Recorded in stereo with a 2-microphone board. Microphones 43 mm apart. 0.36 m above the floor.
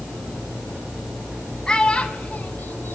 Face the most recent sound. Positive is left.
turn(degrees=65)  # may be behind; listen again after turning